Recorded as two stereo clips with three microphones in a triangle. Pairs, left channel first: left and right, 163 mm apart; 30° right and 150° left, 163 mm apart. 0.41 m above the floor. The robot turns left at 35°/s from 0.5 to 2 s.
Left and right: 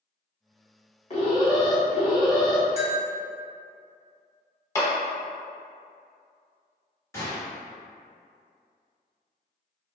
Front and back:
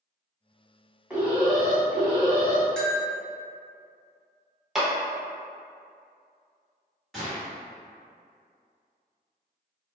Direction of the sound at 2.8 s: 115° right.